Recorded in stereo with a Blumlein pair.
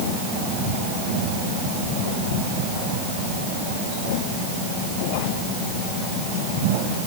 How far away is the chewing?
No chewing in this recording.